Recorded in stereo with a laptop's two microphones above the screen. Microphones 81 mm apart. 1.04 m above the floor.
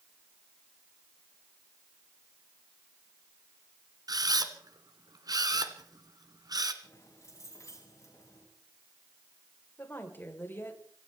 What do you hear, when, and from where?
4.1 s a camera shutter: 55° right (ahead or behind), 1.8 m
6.8 s keys jangling: 40° left (ahead or behind), 7 m
9.8 s a woman speaking: 30° left (ahead or behind), 4.5 m